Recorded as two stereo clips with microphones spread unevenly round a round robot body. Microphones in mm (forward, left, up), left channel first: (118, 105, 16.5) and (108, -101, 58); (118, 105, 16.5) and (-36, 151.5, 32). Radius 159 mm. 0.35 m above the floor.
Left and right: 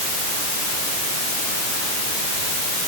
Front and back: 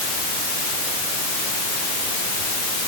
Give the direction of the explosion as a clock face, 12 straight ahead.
I don't hear an explosion.